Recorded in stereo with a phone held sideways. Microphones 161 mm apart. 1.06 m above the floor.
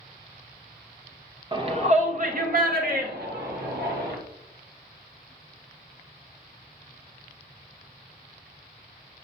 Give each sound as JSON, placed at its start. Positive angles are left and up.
{"t": 1.5, "sound": "a shout", "side_deg": -30, "distance_m": 1.1}